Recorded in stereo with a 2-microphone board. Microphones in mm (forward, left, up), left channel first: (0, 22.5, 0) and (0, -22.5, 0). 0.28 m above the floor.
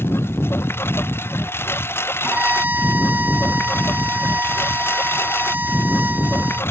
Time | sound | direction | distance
0.0 | a lawn mower | 60° left (ahead or behind) | ?
2.2 | a violin | 45° right (ahead or behind) | ?